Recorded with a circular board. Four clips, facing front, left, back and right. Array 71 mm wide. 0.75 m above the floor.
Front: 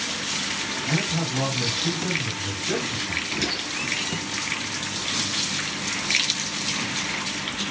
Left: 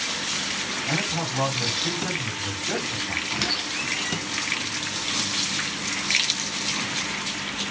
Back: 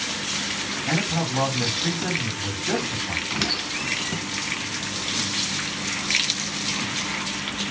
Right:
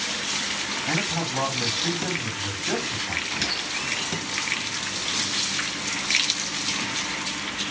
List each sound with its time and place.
0.9 s a man speaking: 150° right, 2.5 m
3.3 s a squeak: 160° left, 3 m